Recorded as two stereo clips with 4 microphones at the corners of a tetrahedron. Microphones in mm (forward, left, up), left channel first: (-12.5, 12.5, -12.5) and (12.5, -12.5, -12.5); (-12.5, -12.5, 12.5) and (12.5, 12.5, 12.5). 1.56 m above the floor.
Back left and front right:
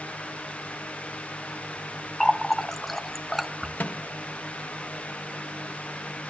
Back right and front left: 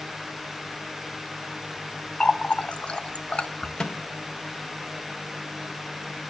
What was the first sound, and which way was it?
A running tap, 145° right.